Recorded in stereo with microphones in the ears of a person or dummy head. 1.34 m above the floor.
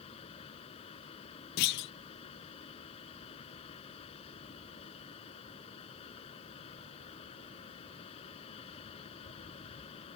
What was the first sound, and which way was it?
A fan, 30° left (ahead or behind).